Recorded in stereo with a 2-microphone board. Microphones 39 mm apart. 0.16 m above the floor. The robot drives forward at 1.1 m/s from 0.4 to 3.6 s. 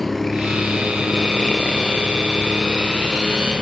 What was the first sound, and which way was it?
A helicopter, 5° left (ahead or behind).